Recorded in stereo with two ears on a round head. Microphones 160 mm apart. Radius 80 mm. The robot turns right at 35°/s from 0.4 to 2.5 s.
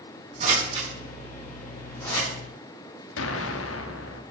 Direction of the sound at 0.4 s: 40° right (ahead or behind).